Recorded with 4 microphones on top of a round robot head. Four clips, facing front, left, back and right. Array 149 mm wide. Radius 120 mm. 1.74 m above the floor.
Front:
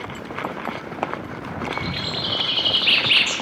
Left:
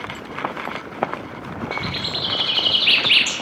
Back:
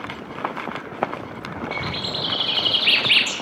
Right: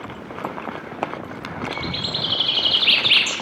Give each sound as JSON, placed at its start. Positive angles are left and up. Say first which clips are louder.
{"t": 1.7, "sound": "a bird", "louder": "left 1 dB, front 1 dB", "azimuth_deg": -165, "distance_m": 3.0}